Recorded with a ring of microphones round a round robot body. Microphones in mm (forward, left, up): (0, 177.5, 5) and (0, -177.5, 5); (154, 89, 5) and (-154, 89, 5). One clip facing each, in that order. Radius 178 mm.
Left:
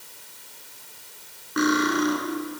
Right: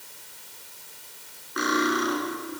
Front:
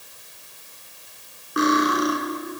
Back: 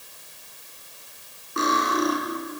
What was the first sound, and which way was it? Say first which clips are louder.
Cutlery clinking: left 4 dB, front 5 dB; 75° left.